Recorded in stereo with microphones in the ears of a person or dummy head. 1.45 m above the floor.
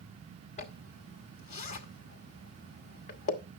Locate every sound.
0.6 s a zipper: 30° left (ahead or behind), 0.9 m